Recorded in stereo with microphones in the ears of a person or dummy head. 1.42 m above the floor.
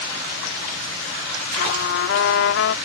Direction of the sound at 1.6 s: 65° left (ahead or behind).